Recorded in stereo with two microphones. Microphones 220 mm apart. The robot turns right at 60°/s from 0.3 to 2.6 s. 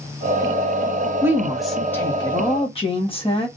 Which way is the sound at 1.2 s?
15° right (ahead or behind).